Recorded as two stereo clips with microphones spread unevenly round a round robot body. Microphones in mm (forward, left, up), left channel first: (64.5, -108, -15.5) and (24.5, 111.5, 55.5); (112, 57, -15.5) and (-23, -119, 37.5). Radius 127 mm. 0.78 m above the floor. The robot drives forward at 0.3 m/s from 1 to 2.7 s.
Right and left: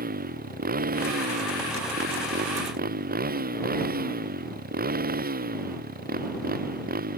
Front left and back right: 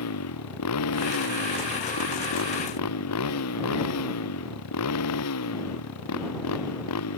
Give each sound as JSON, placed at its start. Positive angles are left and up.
{"t": 0.0, "sound": "a motorcycle", "azimuth_deg": 50}